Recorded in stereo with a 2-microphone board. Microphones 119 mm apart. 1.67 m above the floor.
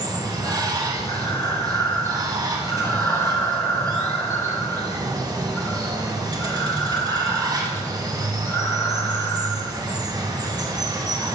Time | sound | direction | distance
0.0 | running water | 35° right (ahead or behind) | 2 m
1.1 | breathing | 25° left (ahead or behind) | 1.5 m